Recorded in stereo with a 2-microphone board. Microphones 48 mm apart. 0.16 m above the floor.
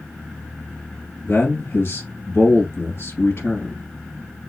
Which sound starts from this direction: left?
A man speaking, at 1.2 s.